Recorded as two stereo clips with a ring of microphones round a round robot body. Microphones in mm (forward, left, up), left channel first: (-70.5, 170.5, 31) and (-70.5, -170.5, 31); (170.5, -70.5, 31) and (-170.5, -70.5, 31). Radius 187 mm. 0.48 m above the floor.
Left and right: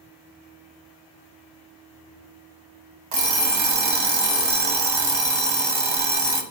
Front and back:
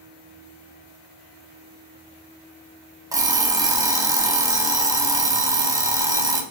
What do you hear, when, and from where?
3.1 s an alarm clock: 100° right, 1.3 m